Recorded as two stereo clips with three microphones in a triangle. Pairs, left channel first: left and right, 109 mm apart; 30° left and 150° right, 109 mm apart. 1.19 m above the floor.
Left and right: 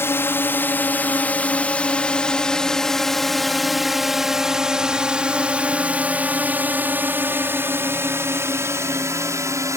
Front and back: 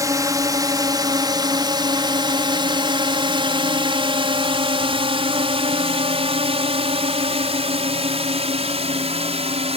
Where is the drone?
155° left; by 9.8 s 150° right.